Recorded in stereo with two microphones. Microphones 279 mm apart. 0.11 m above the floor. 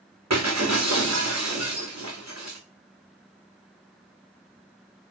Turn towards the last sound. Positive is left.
turn(degrees=-70)  # may be behind; listen again after turning